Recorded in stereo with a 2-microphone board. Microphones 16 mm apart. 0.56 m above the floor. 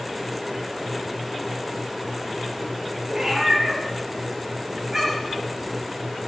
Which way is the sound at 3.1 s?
25° right (ahead or behind).